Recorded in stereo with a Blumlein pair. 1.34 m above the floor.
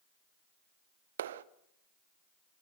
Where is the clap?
60° right, 0.9 m.